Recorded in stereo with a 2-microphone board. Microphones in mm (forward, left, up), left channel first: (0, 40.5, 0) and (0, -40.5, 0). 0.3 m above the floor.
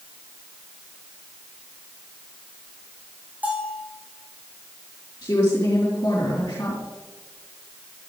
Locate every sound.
3.4 s a bell: 20° right (ahead or behind), 4 m
5.2 s a woman speaking: 35° left (ahead or behind), 4 m